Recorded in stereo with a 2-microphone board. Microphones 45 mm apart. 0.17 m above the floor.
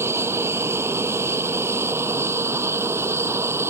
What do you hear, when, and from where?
0.0 s an aircraft: 65° right (ahead or behind); by 3.7 s 70° right (ahead or behind)